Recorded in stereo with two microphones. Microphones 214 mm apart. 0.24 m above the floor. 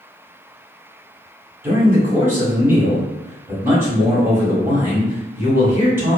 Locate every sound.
1.6 s a man speaking: 10° right (ahead or behind), 1.2 m